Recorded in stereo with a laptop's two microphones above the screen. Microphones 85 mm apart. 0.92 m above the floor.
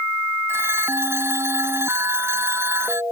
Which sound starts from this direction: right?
A phone ringing, at 0.5 s.